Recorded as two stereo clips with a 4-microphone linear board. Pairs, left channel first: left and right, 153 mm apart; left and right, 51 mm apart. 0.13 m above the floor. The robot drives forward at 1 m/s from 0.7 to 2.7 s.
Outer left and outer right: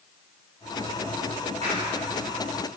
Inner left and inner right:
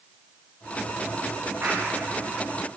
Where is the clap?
45° right (ahead or behind), 9.5 m.